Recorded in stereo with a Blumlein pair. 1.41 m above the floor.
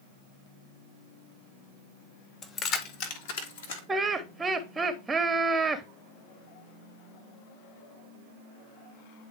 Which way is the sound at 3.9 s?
10° right.